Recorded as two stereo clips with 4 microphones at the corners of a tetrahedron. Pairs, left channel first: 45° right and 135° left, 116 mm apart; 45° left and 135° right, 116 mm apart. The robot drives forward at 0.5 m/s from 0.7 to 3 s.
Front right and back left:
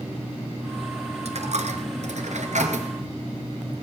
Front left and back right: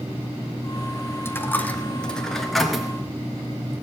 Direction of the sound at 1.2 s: 115° left.